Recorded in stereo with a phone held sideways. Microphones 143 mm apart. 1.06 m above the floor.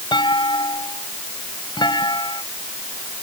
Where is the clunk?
30° left (ahead or behind).